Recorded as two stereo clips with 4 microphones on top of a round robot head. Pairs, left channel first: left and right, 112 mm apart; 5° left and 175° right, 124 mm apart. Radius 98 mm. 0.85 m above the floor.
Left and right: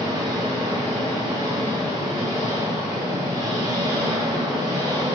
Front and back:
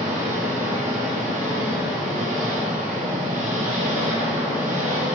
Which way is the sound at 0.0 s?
155° right.